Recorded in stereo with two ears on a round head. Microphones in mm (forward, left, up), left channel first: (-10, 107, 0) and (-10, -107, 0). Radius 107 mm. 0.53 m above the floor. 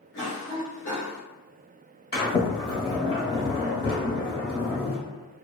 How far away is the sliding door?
About 0.9 m.